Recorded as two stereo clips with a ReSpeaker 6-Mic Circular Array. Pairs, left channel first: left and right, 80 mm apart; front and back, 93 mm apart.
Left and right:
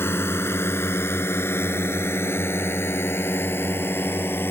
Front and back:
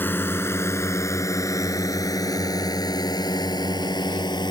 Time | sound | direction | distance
0.0 | a drone | 50° left | ?